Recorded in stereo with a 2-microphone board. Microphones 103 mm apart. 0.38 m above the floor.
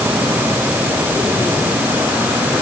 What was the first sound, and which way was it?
Only background noise.